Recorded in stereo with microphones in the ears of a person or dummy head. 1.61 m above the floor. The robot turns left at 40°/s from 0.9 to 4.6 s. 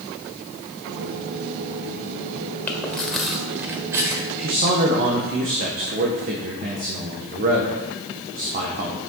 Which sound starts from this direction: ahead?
Chewing, at 2.7 s.